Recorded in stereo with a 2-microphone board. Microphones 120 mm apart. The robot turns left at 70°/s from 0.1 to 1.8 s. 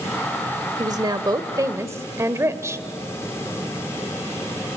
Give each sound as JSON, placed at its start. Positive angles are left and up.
{"t": 0.8, "sound": "a woman speaking", "azimuth_deg": -65, "distance_m": 1.2}